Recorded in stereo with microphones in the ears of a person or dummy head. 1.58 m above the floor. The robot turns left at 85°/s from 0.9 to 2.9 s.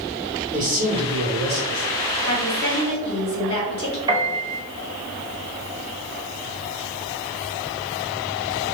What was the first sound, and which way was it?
A man speaking, 45° right.